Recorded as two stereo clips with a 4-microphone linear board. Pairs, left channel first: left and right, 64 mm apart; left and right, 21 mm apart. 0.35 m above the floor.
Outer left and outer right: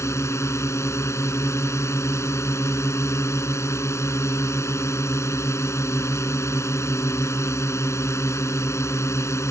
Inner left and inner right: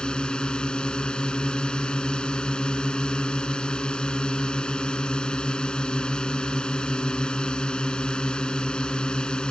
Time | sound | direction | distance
0.0 | a drone | 50° left (ahead or behind) | ?